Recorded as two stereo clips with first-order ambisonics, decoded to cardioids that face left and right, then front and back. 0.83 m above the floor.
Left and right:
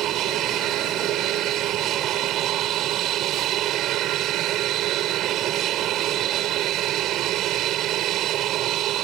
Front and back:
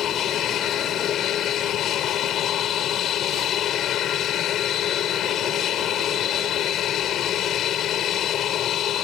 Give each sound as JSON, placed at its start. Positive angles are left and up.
{"t": 0.0, "sound": "an aircraft", "azimuth_deg": -50}